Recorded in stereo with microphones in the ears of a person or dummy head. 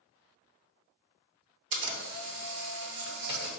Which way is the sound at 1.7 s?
60° right (ahead or behind).